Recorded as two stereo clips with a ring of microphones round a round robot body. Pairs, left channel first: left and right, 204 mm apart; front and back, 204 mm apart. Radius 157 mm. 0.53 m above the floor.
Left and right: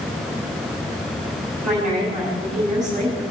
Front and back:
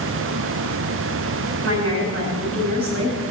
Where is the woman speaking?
175° right, 5.5 m.